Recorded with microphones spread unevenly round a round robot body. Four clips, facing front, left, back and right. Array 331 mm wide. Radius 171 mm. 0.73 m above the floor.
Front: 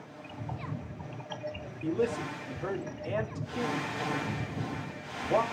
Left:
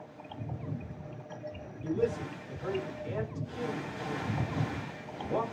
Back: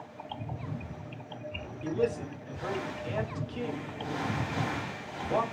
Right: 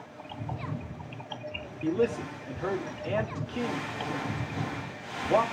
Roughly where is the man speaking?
Right.